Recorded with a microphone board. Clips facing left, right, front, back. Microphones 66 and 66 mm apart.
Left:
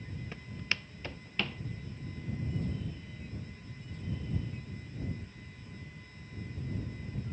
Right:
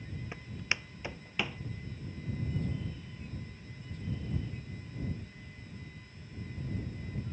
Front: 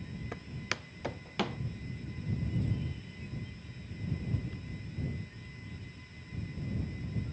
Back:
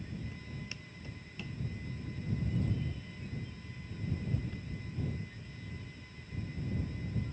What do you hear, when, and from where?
0.3 s footsteps: 20° right; by 1.6 s 10° right